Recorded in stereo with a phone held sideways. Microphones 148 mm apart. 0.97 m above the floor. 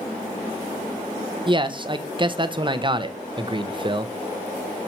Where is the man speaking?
30° right (ahead or behind), 0.7 m.